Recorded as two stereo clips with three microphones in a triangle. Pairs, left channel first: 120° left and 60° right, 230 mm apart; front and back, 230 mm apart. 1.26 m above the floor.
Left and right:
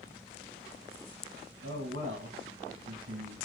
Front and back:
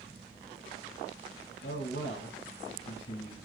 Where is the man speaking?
35° right, 1.5 m.